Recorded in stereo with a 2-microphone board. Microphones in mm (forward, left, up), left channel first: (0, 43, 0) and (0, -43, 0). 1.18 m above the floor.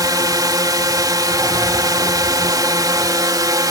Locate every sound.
0.0 s a drone: 50° right (ahead or behind)